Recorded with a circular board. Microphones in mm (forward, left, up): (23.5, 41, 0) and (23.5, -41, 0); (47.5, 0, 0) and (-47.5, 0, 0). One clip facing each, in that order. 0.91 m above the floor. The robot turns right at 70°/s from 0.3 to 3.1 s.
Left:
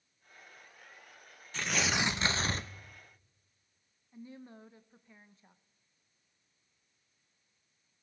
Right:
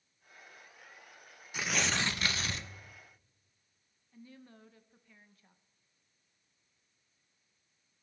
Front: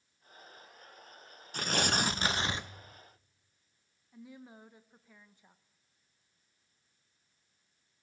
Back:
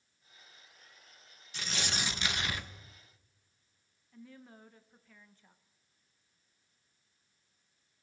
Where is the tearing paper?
15° right, 0.5 m; by 2.7 s 65° left, 0.5 m.